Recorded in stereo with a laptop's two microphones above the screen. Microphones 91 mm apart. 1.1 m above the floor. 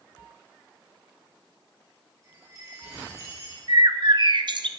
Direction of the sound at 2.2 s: 45° right (ahead or behind).